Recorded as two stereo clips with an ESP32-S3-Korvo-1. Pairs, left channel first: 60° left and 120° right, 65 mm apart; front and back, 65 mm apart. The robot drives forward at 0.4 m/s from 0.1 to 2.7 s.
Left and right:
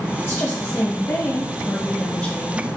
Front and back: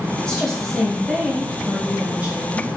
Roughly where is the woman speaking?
Left.